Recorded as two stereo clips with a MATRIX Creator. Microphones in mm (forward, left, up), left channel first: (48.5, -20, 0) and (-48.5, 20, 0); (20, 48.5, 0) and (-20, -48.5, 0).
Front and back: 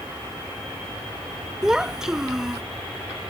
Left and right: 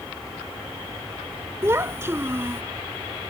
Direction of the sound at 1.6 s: 125° right.